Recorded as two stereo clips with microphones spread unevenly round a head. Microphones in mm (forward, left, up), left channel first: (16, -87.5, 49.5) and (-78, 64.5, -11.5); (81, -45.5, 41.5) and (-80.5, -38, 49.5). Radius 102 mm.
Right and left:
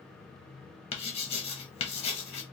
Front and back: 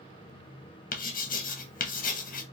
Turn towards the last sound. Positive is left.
turn(degrees=10)